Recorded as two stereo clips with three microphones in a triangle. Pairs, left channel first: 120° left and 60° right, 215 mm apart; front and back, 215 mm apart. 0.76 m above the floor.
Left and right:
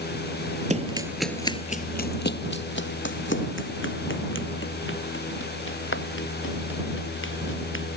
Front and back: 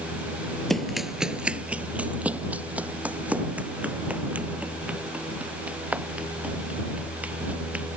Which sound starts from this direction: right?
Running footsteps, at 0.7 s.